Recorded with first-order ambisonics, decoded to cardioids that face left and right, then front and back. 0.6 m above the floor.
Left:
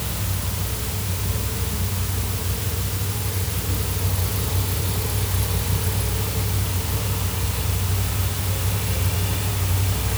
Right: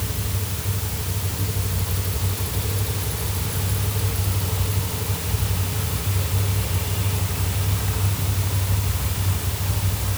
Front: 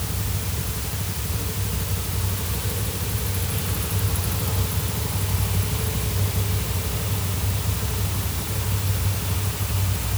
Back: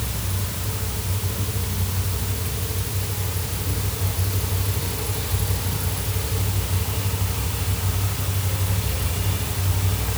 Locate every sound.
Only background noise.